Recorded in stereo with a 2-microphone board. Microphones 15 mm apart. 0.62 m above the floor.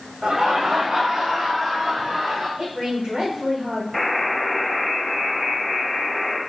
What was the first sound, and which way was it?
Laughter, 65° right (ahead or behind).